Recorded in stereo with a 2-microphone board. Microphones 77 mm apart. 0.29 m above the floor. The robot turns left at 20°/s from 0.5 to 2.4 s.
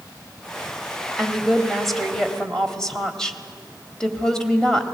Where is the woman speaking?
5° right (ahead or behind), 1.4 m; by 4.8 s 10° left (ahead or behind), 1.4 m.